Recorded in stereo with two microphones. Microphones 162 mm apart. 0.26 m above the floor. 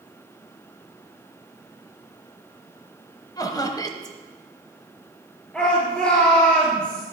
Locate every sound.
3.4 s laughter: 25° left (ahead or behind), 1.0 m
5.5 s a shout: 5° left (ahead or behind), 4.5 m